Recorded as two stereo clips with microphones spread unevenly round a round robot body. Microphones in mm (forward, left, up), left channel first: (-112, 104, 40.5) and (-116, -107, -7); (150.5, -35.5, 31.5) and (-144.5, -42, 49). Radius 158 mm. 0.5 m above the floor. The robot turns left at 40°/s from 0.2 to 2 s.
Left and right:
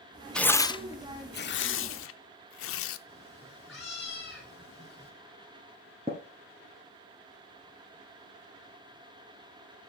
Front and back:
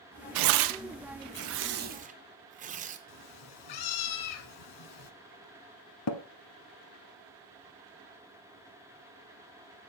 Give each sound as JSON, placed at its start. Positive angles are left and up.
{"t": 0.3, "sound": "tearing paper", "azimuth_deg": 180, "distance_m": 0.5}
{"t": 3.1, "sound": "a cat meowing", "azimuth_deg": 5, "distance_m": 1.1}
{"t": 6.1, "sound": "tapping", "azimuth_deg": -15, "distance_m": 0.8}